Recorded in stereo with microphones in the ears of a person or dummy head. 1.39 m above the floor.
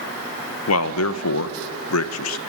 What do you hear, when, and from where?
0.7 s a man speaking: 80° left, 1.3 m